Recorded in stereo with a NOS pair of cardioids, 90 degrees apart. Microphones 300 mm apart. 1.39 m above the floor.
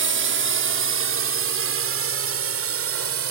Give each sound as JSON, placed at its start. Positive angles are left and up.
{"t": 0.0, "sound": "a drone", "azimuth_deg": -45}